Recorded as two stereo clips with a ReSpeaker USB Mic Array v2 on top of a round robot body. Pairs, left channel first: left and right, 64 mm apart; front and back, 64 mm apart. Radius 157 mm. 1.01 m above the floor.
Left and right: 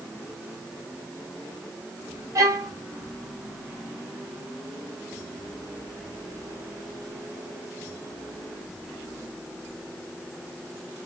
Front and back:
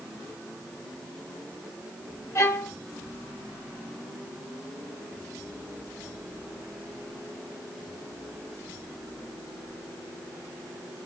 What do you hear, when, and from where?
2.4 s a violin: 50° right, 0.9 m